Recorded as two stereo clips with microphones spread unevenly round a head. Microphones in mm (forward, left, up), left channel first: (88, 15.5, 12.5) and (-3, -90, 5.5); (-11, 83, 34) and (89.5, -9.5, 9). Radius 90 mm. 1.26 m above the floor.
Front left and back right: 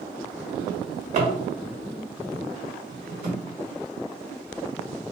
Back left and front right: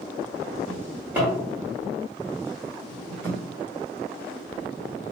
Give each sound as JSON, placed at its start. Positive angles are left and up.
{"t": 0.7, "sound": "a drawer", "azimuth_deg": -130, "distance_m": 1.3}